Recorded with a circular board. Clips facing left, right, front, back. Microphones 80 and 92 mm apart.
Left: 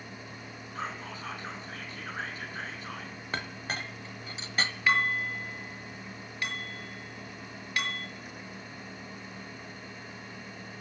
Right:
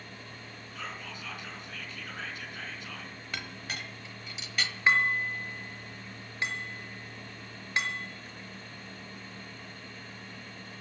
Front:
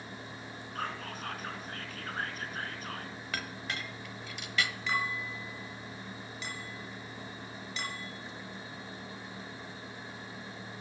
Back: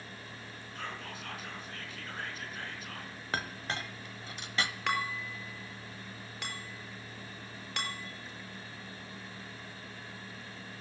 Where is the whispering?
40° left, 4 m.